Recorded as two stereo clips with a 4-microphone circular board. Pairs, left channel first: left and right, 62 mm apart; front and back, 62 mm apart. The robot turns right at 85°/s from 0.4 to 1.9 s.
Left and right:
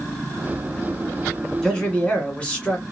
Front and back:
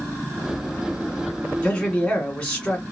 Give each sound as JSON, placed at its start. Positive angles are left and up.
{"t": 1.6, "sound": "a man speaking", "azimuth_deg": 25, "distance_m": 1.6}